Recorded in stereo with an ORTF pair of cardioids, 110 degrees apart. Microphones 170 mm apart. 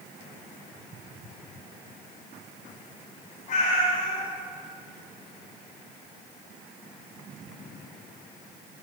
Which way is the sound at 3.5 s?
55° left.